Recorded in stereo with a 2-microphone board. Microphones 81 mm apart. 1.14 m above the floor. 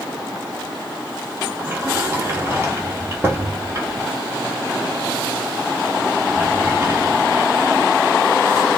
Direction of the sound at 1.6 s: 30° right (ahead or behind).